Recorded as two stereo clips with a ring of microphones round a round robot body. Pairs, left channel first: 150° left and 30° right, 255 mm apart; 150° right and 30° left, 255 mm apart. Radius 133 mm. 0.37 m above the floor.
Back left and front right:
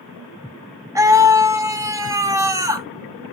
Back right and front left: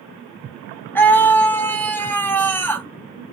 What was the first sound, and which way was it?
A scream, 80° right.